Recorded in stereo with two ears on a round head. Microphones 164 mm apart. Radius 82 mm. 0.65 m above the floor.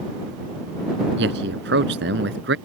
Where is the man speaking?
65° right (ahead or behind).